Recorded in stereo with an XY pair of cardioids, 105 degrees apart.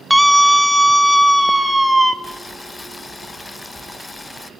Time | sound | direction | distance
0.1 | a scream | straight ahead | 0.9 m
2.2 | boiling | 20° left | 0.8 m